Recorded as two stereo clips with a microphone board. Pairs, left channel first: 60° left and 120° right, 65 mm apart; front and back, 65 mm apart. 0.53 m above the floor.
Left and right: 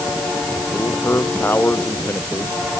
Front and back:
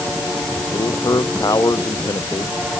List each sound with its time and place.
0.7 s a man speaking: 10° left